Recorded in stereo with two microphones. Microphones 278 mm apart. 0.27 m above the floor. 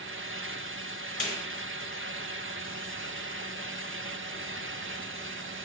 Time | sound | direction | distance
1.2 | a snare drum | 40° left (ahead or behind) | 1.3 m